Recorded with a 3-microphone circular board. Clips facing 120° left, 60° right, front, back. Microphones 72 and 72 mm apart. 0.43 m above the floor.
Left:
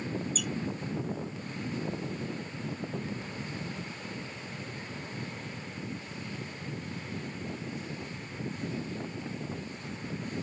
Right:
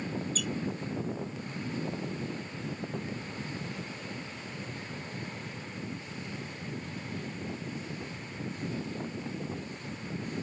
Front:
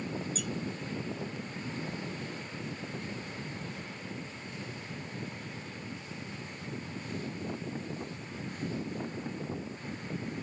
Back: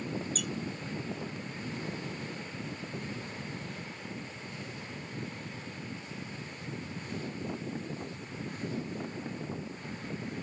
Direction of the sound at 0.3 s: 165° right.